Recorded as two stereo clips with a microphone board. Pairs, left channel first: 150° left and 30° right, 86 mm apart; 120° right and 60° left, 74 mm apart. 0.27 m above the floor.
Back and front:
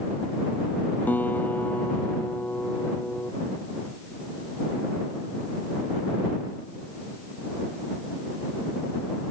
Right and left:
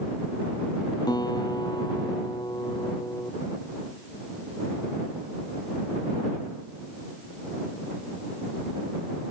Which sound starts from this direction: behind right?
A guitar, at 1.1 s.